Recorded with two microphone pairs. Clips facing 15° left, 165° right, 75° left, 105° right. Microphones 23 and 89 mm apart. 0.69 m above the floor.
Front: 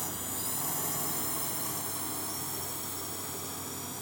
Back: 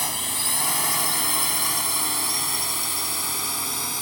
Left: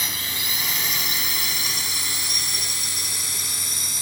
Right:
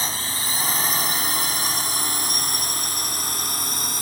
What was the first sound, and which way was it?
A drone, 160° right.